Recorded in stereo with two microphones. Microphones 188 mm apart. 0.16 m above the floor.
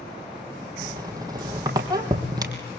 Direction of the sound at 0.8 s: 20° right (ahead or behind).